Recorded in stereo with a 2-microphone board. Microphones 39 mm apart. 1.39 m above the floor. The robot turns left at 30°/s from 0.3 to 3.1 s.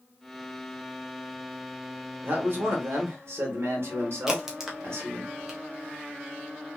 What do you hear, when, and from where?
2.2 s a man speaking: 55° right (ahead or behind), 1.5 m; by 5.3 s 75° right (ahead or behind), 1.5 m
4.3 s a crack: 10° right (ahead or behind), 0.7 m